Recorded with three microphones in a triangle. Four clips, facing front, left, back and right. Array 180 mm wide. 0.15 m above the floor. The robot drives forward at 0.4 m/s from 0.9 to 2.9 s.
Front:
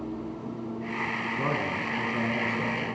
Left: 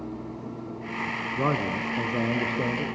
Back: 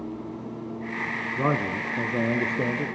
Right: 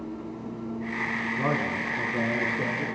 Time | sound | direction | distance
1.4 | a man speaking | 140° left | 1.2 m